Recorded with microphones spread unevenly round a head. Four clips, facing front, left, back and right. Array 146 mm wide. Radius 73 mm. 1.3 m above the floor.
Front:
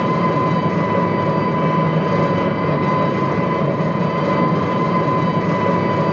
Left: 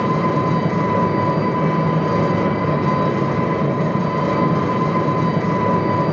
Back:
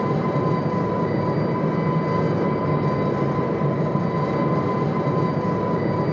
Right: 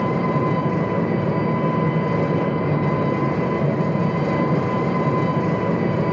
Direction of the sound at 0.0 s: 10° left.